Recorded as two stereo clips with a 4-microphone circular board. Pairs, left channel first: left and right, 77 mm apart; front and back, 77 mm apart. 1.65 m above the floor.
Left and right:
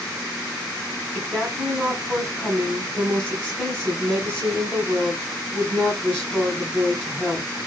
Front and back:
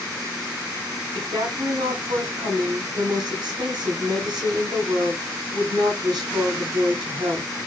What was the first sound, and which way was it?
A woman speaking, 170° left.